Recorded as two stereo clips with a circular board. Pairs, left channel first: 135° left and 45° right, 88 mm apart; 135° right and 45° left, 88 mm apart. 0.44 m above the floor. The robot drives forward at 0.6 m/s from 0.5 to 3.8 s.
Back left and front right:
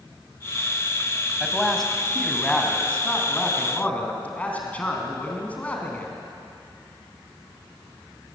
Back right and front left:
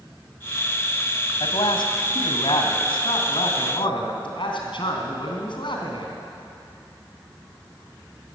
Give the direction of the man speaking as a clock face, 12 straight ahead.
5 o'clock.